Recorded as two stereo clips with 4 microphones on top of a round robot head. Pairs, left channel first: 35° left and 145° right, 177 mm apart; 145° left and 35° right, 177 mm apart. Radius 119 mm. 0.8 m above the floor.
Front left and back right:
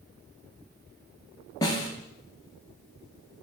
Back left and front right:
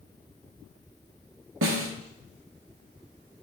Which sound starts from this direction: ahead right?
A snare drum, at 1.6 s.